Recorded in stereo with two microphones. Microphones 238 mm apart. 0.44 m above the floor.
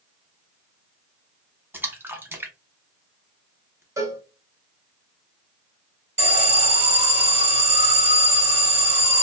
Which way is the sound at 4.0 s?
15° right (ahead or behind).